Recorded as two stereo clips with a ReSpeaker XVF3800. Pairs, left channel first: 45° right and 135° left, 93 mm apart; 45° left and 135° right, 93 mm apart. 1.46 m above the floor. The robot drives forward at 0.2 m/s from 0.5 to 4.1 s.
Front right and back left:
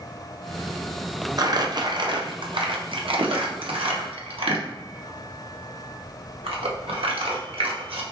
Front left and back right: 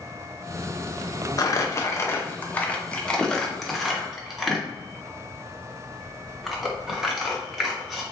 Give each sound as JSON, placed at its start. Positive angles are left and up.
{"t": 1.4, "sound": "crumpling", "azimuth_deg": 90, "distance_m": 0.5}